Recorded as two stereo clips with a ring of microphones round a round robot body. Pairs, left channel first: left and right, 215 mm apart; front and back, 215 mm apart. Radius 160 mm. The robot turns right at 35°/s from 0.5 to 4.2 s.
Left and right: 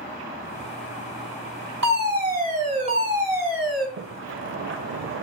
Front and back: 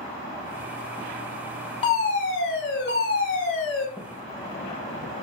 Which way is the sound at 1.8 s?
65° right.